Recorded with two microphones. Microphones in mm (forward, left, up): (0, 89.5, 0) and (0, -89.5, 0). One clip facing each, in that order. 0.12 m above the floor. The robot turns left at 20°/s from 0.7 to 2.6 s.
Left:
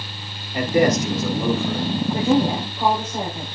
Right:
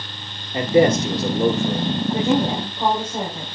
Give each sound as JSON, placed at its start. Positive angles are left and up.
{"t": 0.5, "sound": "a man speaking", "side_deg": -30, "distance_m": 2.0}
{"t": 2.1, "sound": "a woman speaking", "side_deg": -20, "distance_m": 5.0}